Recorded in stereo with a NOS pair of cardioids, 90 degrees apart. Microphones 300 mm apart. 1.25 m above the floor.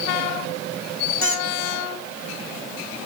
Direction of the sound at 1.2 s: 50° left.